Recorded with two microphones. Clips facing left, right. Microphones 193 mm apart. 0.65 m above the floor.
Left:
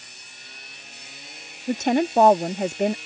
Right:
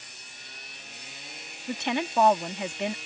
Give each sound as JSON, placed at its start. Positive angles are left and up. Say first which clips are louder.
{"t": 1.7, "sound": "a woman speaking", "louder": "left 9 dB", "side_deg": 45}